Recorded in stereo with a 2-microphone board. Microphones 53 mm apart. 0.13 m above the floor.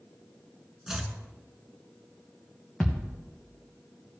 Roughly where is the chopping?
Centre.